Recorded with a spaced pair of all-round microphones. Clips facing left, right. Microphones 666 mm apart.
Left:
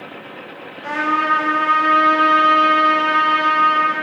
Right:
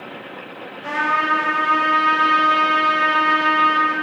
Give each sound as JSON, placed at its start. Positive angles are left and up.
{"t": 0.8, "sound": "a trumpet", "side_deg": -60, "distance_m": 1.5}